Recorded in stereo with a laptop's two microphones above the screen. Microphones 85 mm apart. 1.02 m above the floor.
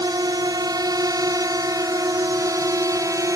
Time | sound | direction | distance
0.0 | a drone | 50° right (ahead or behind) | ?